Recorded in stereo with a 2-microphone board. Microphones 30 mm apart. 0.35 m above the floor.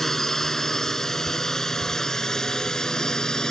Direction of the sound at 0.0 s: 10° left (ahead or behind).